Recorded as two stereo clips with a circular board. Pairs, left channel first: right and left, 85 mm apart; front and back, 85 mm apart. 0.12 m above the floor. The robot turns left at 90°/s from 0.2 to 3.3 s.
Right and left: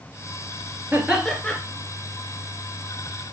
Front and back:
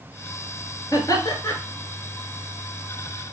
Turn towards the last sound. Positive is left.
turn(degrees=175)